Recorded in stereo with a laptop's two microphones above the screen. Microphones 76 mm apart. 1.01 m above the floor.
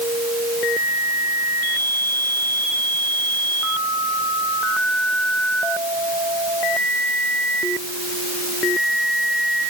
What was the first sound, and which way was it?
Only background noise.